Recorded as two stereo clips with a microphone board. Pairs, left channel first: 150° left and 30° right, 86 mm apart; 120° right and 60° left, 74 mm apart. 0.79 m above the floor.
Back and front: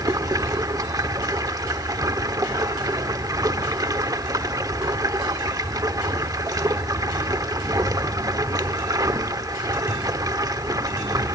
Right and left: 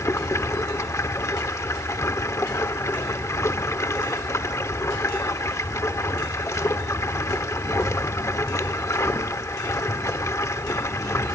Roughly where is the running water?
Right.